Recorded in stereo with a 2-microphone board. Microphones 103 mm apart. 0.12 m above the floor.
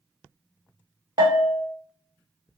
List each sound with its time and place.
1.2 s a bell: 45° right (ahead or behind), 0.6 m